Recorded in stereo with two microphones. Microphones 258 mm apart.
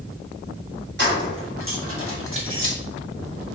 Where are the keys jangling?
45° right (ahead or behind), 1.6 m.